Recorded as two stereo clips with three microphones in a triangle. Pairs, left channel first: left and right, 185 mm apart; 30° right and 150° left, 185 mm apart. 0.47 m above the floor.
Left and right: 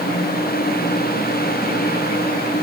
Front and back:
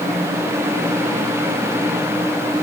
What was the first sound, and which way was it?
Only background noise.